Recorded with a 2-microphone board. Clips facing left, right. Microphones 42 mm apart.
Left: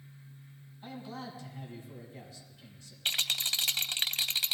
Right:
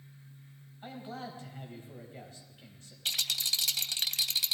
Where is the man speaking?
40° right (ahead or behind), 3.5 m.